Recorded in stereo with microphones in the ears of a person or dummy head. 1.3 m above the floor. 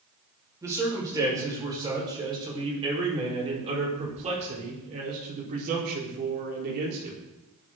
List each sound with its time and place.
0.6 s a man speaking: 15° right (ahead or behind), 5.5 m; by 7.2 s 55° right (ahead or behind), 4.5 m